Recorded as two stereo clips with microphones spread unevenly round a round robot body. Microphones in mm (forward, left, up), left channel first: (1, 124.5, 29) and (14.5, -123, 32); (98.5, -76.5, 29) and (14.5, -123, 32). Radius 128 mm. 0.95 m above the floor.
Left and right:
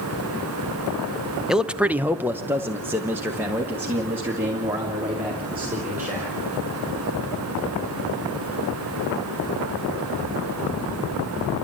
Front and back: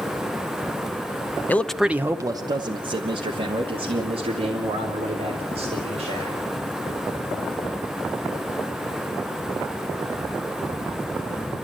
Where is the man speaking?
Straight ahead, 0.6 m; by 6.4 s 170° right, 3.5 m.